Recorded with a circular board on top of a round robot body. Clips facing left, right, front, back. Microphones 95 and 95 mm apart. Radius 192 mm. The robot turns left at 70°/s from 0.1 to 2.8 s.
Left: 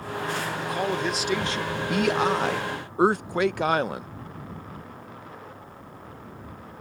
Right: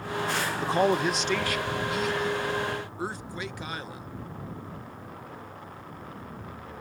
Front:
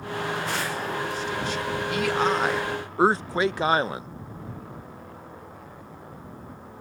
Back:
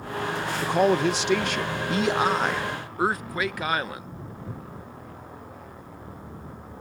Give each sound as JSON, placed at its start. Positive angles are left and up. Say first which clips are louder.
{"t": 0.6, "sound": "a man speaking", "louder": "right 4 dB, back 9 dB", "azimuth_deg": -145}